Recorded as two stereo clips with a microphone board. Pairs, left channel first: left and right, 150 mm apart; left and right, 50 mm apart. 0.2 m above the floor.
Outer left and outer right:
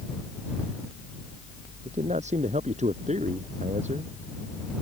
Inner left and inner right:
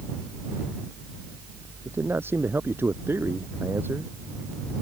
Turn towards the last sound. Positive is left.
turn(degrees=-50)  # may be behind; listen again after turning